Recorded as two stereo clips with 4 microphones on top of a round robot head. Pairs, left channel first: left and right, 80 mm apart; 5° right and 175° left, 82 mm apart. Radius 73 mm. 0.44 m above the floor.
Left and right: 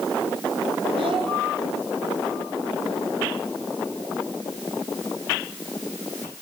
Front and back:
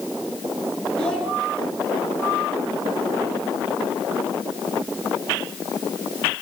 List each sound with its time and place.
1.0 s a child speaking: 85° right, 6.5 m